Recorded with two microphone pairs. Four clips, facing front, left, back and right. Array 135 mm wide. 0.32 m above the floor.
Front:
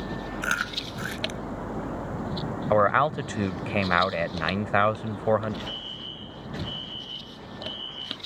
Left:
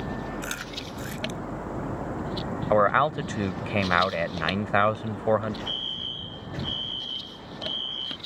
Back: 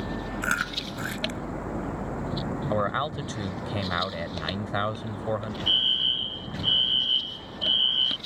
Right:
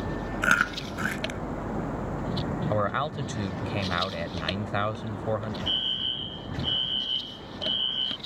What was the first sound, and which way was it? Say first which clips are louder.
Chewing: right 10 dB, even; 90° right.